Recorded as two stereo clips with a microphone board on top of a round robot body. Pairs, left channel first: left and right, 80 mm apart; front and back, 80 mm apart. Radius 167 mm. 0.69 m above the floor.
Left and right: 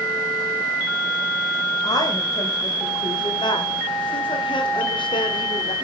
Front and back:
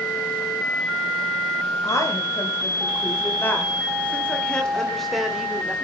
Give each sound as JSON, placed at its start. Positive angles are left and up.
{"t": 1.8, "sound": "a woman speaking", "azimuth_deg": 45, "distance_m": 4.5}